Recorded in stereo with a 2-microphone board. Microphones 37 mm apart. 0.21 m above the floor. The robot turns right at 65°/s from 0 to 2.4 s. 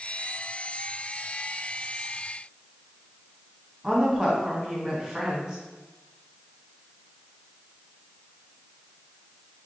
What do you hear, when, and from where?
3.8 s a woman speaking: 5° right (ahead or behind), 1.6 m